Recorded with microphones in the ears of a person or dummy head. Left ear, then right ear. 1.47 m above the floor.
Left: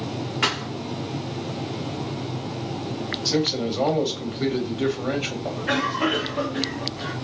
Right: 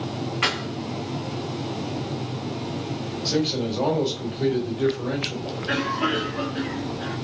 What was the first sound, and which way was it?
A thud, centre (ahead or behind).